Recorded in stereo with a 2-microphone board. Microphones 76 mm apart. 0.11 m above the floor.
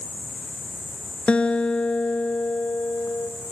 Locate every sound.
0.0 s an insect: 20° right (ahead or behind), 5.5 m
1.3 s a guitar: 15° left (ahead or behind), 0.6 m